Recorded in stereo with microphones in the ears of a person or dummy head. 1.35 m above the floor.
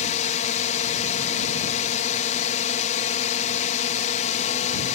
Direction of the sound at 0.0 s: 40° left (ahead or behind).